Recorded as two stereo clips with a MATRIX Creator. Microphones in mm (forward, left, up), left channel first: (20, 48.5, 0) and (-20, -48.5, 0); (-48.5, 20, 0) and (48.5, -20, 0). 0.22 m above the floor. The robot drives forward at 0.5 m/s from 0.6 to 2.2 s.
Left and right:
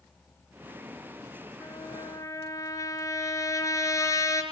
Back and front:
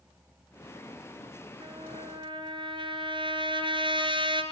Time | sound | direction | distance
1.6 | a trumpet | 10° left | 3 m